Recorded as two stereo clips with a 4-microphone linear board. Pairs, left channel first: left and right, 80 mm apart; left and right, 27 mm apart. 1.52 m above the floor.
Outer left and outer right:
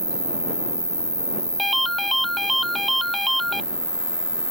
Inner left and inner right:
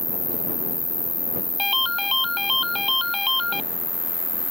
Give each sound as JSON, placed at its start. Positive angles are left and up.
{"t": 0.0, "sound": "an insect", "side_deg": 55}
{"t": 1.6, "sound": "a ringtone", "side_deg": 0}